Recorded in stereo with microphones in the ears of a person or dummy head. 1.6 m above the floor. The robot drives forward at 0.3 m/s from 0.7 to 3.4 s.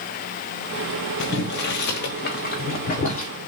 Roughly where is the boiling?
Left.